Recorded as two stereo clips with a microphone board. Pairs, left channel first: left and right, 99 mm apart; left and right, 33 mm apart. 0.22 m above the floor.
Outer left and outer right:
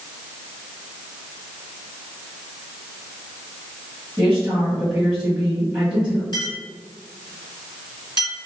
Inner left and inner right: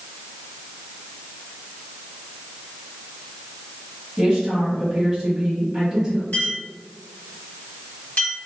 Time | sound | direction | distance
4.2 | a woman speaking | 10° right (ahead or behind) | 1.5 m
6.3 | a clink | 50° left (ahead or behind) | 1.9 m